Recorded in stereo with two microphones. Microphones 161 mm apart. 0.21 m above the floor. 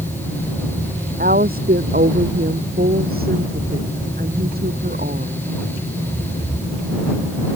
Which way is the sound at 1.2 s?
70° right (ahead or behind).